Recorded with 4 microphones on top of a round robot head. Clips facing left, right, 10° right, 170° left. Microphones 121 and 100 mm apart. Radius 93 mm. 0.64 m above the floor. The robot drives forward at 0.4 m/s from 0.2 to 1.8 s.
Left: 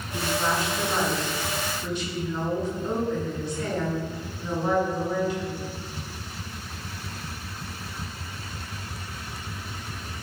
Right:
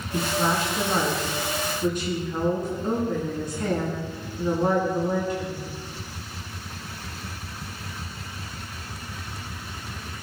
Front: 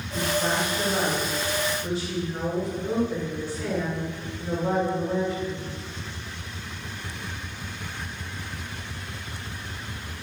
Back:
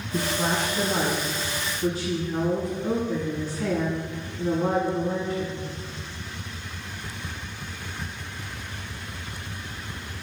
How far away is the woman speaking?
About 8.5 m.